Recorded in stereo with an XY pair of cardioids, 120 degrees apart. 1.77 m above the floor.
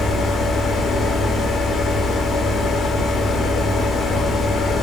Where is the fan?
45° left, 0.9 m.